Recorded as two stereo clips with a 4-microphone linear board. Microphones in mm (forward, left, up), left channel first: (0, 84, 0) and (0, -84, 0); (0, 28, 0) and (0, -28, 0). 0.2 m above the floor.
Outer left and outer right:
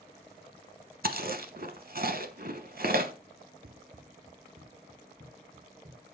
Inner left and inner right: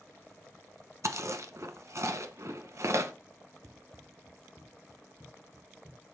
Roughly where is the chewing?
Right.